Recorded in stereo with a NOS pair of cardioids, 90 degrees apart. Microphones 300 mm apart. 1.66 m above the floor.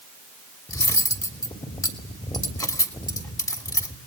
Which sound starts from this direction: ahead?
Cutlery clinking, at 0.7 s.